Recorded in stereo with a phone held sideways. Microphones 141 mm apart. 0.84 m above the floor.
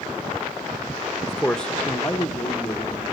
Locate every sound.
1.3 s a man speaking: centre (ahead or behind), 0.9 m; by 3.1 s 10° left (ahead or behind), 2.5 m